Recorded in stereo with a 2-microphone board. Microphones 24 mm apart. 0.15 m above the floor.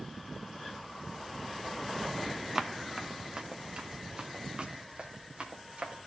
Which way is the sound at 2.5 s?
15° right (ahead or behind).